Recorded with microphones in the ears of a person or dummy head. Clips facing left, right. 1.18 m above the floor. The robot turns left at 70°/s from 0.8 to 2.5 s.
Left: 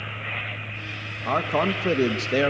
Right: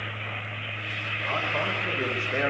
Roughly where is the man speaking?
Behind left.